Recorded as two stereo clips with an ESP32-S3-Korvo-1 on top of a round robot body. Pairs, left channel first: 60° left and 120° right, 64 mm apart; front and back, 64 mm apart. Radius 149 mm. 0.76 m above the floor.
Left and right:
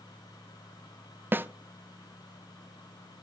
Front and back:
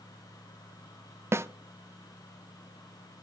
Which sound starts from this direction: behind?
A snare drum, at 1.3 s.